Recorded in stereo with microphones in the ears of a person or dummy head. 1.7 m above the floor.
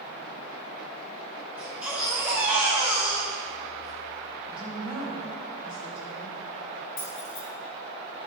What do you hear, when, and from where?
1.6 s a baby crying: 5° right (ahead or behind), 1.4 m
4.5 s a woman speaking: 5° right (ahead or behind), 2.0 m
7.0 s keys jangling: 25° left (ahead or behind), 0.7 m